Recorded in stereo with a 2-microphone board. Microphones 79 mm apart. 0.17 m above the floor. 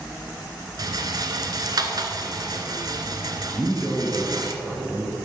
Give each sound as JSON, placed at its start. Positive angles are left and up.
{"t": 0.8, "sound": "a rattle", "side_deg": -55, "distance_m": 1.0}
{"t": 3.5, "sound": "a man speaking", "side_deg": 0, "distance_m": 2.0}